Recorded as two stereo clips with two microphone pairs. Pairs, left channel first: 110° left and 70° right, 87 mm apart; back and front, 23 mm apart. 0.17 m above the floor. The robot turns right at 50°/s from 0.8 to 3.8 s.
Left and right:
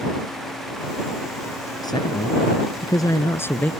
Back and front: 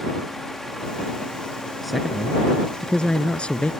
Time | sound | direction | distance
1.8 | a man speaking | 85° left | ?